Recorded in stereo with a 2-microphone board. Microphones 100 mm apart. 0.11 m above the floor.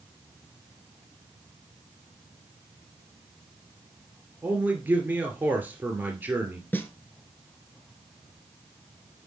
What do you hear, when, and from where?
4.4 s a man speaking: 15° right (ahead or behind), 2 m
6.7 s a snare drum: 20° left (ahead or behind), 1.6 m